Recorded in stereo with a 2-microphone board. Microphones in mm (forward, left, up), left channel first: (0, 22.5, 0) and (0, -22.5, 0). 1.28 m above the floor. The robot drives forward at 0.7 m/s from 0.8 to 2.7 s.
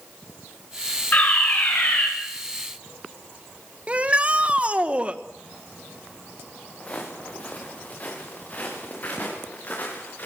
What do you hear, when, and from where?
1.1 s a fire alarm: 40° left (ahead or behind), 9.5 m; by 2.1 s 35° left (ahead or behind), 10 m
3.9 s a shout: 30° right (ahead or behind), 1.5 m
6.8 s footsteps: 30° left (ahead or behind), 7 m; by 10.3 s 40° left (ahead or behind), 9 m